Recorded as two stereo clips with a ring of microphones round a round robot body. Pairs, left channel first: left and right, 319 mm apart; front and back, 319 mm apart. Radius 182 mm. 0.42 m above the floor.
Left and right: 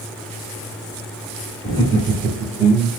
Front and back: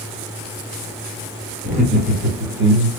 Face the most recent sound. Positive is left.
turn(degrees=175)